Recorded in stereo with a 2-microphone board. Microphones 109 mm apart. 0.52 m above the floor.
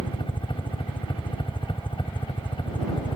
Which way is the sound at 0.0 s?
50° left (ahead or behind).